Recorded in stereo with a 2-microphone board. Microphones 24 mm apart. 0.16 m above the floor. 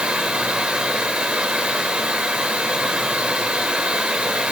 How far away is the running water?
About 1.5 m.